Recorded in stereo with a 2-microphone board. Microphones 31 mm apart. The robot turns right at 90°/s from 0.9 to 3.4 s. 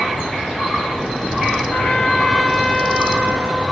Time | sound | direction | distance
1.7 | a trumpet | 120° left | 3 m